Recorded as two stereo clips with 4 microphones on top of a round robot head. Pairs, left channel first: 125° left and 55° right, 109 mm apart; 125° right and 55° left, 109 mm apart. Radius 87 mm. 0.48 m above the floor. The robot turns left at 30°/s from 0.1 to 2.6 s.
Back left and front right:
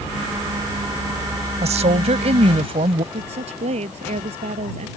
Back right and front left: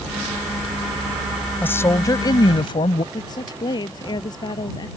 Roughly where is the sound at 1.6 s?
Ahead right.